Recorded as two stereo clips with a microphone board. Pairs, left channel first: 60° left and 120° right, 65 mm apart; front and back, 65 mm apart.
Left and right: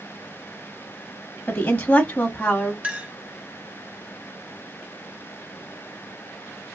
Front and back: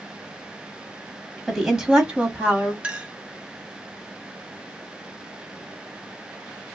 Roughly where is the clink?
Behind right.